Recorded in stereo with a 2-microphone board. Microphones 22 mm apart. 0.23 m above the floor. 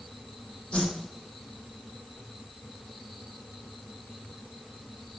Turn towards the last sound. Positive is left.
turn(degrees=80)